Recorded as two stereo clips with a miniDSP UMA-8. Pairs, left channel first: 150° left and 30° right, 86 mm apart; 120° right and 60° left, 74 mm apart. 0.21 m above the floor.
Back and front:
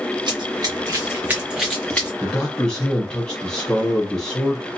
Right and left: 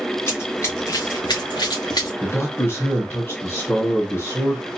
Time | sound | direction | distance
0.3 | running footsteps | 60° right | 1.5 m
2.2 | a man speaking | 135° right | 1.5 m